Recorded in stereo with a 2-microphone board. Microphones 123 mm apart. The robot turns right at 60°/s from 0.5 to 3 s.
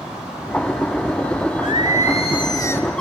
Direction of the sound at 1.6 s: 90° left.